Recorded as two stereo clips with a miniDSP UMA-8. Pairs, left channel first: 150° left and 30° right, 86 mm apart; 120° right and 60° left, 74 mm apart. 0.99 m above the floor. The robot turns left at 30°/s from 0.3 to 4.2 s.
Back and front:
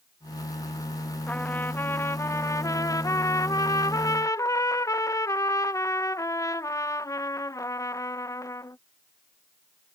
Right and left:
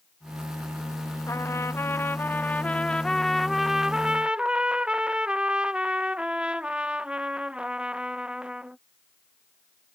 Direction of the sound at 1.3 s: 145° right.